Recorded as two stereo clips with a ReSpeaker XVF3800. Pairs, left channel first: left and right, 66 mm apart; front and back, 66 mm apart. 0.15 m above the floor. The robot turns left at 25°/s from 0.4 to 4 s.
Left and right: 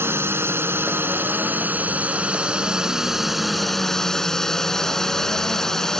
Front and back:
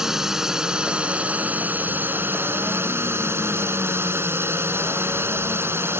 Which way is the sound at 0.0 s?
100° right.